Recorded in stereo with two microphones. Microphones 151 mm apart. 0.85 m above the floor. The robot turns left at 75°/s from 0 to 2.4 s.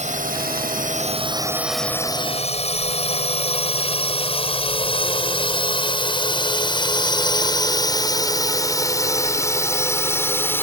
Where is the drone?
50° right (ahead or behind); by 10.6 s 15° left (ahead or behind).